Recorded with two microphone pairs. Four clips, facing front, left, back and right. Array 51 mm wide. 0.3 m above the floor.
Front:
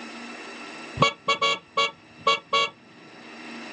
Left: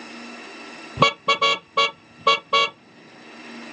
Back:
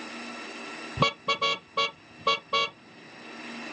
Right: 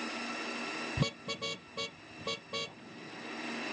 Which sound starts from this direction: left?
A car horn, at 1.0 s.